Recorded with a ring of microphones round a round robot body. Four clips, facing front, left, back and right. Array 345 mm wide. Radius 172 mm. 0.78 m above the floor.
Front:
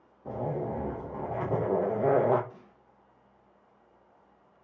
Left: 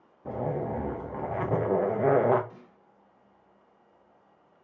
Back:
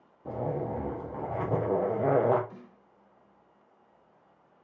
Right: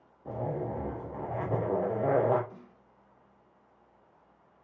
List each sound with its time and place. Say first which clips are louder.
0.2 s a zipper: left 3 dB, even; 105° left, 0.7 m
2.5 s a snare drum: even, back 3 dB; 135° left, 2 m